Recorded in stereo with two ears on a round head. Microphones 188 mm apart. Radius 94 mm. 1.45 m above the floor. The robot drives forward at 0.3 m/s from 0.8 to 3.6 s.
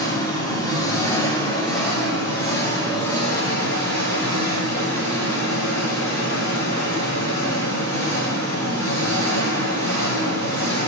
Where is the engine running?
15° left (ahead or behind), 3 m.